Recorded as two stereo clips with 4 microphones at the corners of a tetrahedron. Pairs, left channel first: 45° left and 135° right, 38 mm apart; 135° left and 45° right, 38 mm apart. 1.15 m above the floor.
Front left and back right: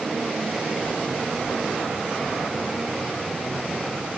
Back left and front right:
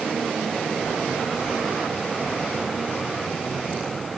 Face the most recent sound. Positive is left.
No sound to turn to.